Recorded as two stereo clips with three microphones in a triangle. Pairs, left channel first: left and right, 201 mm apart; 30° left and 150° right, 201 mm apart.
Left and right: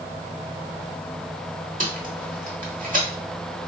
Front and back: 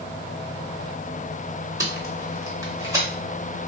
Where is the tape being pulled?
85° right, 1.0 m.